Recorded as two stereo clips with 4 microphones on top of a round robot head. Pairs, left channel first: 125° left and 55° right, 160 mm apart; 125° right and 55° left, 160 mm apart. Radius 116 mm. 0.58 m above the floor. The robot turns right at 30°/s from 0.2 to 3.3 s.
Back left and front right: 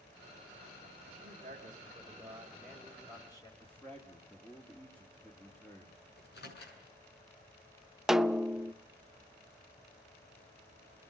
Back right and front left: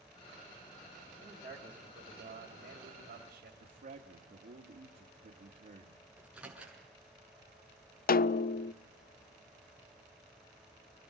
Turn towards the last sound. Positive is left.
turn(degrees=-140)